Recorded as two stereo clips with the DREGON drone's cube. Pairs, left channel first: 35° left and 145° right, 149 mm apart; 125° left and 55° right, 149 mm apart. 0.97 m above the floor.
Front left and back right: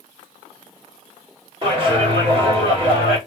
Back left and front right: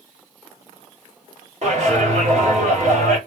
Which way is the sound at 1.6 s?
95° right.